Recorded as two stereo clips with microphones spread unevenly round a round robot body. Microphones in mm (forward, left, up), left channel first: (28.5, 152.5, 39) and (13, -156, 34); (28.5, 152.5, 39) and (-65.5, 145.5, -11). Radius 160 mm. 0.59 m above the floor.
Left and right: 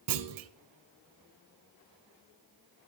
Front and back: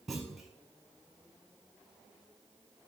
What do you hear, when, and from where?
0.1 s a clunk: 80° right, 0.7 m